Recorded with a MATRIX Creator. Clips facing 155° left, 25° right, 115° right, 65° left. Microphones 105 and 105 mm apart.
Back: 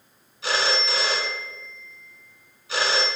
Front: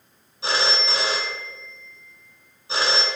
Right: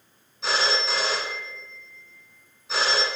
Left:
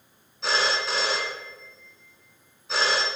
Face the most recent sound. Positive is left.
turn(degrees=-20)